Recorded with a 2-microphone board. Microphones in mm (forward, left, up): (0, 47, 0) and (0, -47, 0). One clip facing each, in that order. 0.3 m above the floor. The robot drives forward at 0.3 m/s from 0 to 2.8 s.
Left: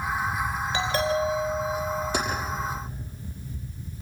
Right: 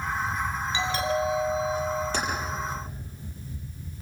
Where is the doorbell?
45° left (ahead or behind), 5.5 m.